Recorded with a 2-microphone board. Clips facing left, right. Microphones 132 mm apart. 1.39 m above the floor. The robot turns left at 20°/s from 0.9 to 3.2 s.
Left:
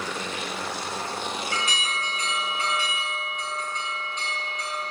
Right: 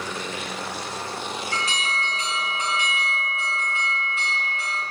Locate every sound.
1.5 s an alarm: 140° right, 2.5 m; by 4.8 s 175° right, 2.5 m